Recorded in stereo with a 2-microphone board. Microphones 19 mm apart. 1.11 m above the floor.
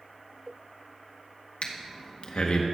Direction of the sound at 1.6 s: 70° left (ahead or behind).